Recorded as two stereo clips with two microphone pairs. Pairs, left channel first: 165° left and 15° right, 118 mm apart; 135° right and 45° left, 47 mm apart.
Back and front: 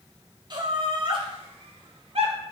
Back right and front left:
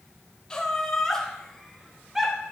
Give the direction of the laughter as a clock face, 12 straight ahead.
2 o'clock.